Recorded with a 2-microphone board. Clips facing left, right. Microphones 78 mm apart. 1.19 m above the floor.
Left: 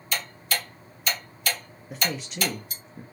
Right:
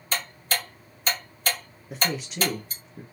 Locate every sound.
0.1 s ticking: 40° right (ahead or behind), 2 m
1.9 s a man speaking: centre (ahead or behind), 0.7 m